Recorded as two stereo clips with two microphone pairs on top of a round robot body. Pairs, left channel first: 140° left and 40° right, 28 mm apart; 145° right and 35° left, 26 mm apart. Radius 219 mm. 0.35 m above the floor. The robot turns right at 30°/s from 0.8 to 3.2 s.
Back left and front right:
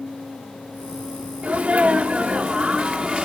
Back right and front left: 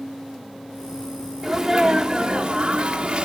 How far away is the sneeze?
About 1.4 m.